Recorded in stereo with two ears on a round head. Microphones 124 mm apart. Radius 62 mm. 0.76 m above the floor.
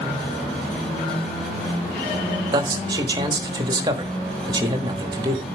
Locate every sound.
2.5 s a man speaking: 30° right (ahead or behind), 1.3 m